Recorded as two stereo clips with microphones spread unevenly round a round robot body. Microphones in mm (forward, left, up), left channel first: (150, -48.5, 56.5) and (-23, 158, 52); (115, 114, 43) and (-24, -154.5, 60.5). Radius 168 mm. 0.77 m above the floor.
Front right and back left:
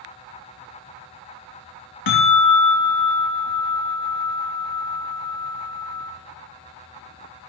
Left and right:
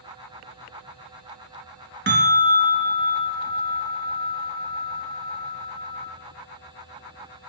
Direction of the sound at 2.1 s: 60° right.